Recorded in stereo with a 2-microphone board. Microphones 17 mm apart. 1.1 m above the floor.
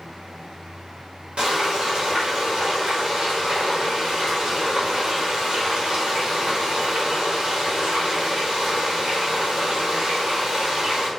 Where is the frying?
70° right (ahead or behind), 1.7 m.